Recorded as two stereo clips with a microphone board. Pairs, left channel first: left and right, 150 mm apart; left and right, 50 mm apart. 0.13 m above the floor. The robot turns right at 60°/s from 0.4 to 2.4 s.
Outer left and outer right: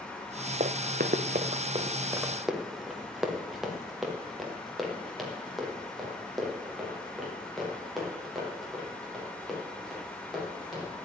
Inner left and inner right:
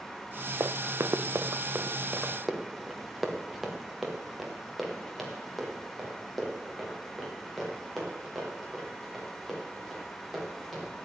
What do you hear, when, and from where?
0.6 s running footsteps: 55° right (ahead or behind), 0.6 m; by 10.9 s centre (ahead or behind), 9 m